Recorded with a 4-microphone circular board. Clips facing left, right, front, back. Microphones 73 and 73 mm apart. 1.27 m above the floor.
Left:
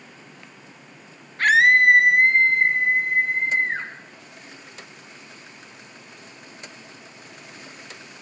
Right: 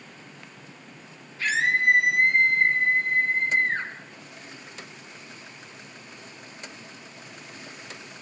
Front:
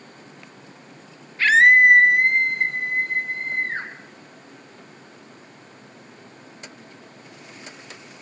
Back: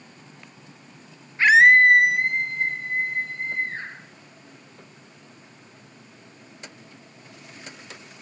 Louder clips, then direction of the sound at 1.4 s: Left 8 dB, even; 115° left.